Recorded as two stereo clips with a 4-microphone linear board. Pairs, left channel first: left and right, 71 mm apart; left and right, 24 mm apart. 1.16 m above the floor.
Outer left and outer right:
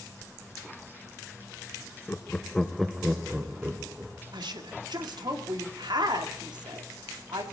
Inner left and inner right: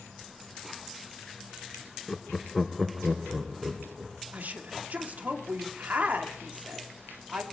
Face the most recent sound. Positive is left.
turn(degrees=-90)